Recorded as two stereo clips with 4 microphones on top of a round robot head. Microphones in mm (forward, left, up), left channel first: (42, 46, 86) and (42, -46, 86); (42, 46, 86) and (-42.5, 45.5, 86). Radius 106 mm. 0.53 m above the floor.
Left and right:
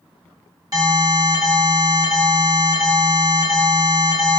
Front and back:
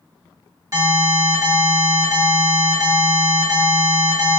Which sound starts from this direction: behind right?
An alarm, at 0.7 s.